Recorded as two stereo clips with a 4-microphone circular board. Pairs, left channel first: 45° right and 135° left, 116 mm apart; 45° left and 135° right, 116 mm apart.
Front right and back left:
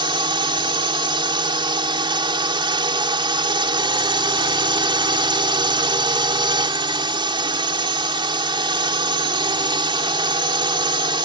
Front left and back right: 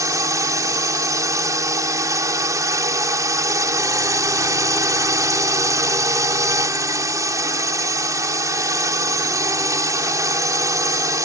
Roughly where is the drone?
Behind.